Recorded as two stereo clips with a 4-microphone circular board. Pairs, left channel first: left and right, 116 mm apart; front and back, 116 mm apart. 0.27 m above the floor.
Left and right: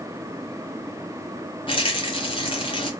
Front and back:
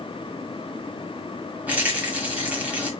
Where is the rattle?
105° left, 1.0 m.